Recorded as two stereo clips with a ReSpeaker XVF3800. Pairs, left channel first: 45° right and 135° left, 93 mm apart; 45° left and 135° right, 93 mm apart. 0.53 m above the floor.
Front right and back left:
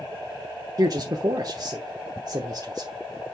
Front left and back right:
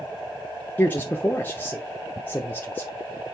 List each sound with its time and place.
0.8 s a man speaking: 110° left, 0.9 m